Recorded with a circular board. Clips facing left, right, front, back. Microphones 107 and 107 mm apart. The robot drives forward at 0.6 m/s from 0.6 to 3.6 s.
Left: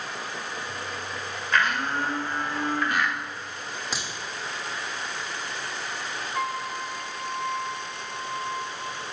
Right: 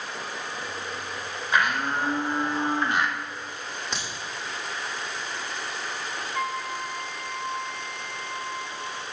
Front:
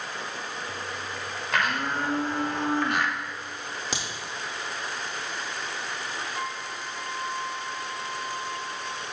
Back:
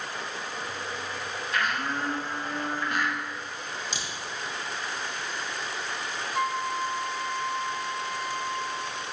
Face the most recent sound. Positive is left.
turn(degrees=170)